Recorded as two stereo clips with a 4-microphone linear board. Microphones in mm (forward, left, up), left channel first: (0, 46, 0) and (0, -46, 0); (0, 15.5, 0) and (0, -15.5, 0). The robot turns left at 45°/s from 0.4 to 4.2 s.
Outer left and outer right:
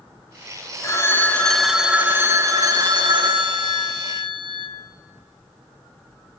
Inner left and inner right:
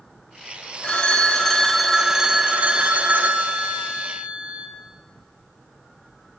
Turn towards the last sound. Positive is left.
turn(degrees=-115)